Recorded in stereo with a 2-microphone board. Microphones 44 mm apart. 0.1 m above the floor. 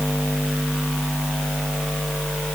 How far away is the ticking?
I don't hear ticking.